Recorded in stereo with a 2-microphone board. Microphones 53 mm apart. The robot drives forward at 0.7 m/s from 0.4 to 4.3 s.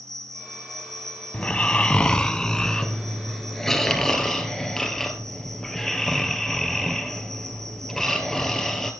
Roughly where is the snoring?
Left.